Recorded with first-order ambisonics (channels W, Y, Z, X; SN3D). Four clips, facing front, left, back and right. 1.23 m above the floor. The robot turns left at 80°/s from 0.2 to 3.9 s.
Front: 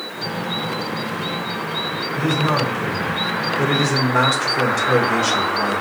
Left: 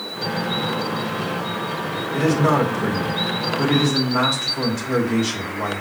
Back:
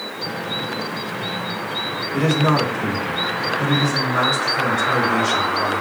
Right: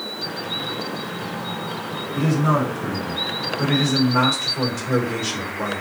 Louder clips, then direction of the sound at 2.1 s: Left 2 dB, back 2 dB; 140° left.